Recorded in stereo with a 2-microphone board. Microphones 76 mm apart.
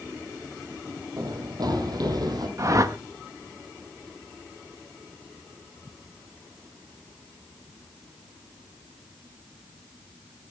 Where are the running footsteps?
60° right (ahead or behind), 3 m; by 2.5 s 55° right (ahead or behind), 4 m.